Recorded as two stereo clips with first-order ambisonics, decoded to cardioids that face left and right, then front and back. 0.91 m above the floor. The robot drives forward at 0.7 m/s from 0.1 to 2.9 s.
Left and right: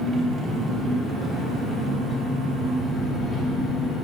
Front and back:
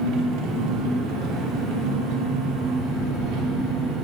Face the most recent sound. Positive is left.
turn(degrees=-170)